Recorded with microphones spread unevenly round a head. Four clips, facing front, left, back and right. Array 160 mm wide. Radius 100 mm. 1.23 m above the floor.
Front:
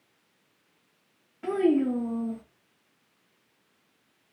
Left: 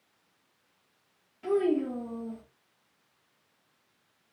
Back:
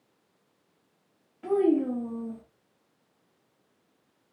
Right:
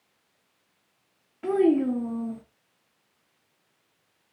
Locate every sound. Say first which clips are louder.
1.4 s a child speaking: right 5 dB, even; 55° right, 0.8 m